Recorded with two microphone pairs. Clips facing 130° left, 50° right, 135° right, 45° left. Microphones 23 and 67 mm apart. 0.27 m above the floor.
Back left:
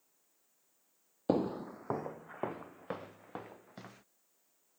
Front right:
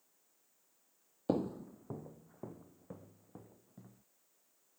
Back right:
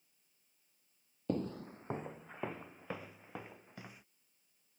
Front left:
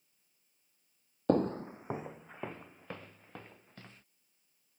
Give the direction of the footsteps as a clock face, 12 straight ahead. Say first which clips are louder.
Back left 3 dB, front left 9 dB; 10 o'clock.